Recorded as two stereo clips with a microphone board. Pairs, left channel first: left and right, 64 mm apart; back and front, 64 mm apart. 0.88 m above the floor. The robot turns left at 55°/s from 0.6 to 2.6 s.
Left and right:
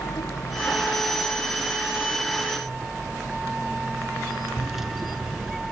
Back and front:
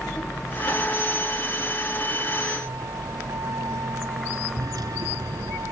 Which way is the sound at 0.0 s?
105° left.